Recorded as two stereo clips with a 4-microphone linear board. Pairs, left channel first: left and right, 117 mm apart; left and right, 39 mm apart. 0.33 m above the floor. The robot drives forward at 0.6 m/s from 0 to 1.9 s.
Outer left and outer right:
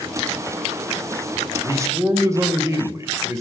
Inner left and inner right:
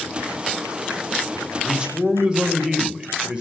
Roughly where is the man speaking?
Right.